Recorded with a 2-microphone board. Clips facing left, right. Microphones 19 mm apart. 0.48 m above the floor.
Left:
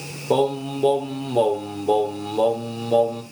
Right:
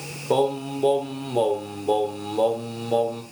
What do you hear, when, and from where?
0.3 s singing: centre (ahead or behind), 1.4 m